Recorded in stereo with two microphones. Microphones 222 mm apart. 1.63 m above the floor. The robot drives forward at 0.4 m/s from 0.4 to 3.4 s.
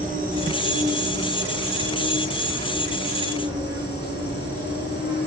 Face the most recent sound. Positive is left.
turn(degrees=-20)  # may be behind; listen again after turning